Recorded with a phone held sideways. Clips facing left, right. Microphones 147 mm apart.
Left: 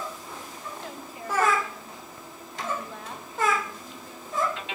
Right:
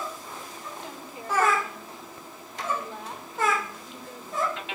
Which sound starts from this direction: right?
A woman speaking, at 0.8 s.